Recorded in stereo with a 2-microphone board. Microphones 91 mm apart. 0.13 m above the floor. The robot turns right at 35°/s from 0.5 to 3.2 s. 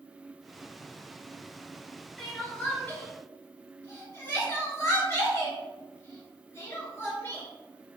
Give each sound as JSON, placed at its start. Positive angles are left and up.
{"t": 2.2, "sound": "crying", "side_deg": 5, "distance_m": 1.2}